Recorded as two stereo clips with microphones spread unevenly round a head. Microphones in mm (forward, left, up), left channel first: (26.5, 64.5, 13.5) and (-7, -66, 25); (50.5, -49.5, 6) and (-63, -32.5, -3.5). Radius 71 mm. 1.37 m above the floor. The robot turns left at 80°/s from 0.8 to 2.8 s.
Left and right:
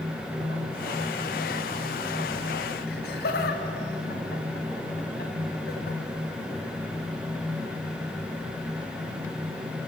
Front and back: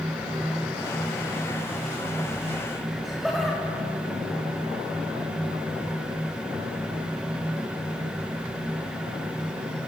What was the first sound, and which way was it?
Laughter, 80° left.